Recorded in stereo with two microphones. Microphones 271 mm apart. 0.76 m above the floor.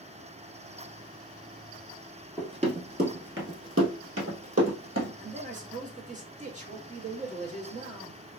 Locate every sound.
2.4 s running footsteps: 15° right (ahead or behind), 1.0 m; by 5.1 s 60° right (ahead or behind), 1.6 m
5.2 s a man speaking: 25° right (ahead or behind), 0.9 m